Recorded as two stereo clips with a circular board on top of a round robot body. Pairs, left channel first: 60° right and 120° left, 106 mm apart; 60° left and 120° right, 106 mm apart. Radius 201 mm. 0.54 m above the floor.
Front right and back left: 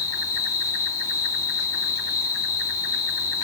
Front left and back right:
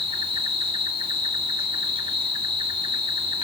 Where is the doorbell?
I don't hear a doorbell.